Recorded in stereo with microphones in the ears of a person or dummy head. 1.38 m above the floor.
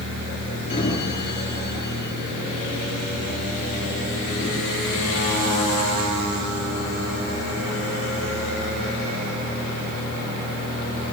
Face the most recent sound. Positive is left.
turn(degrees=35)  # may be behind; listen again after turning